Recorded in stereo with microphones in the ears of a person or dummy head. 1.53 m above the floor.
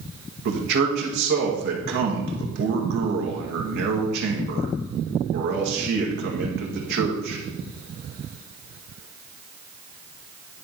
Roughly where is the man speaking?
Right.